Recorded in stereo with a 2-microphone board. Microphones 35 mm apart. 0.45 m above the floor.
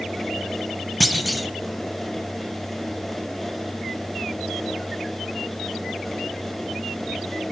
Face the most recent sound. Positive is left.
turn(degrees=0)  # may be behind; listen again after turning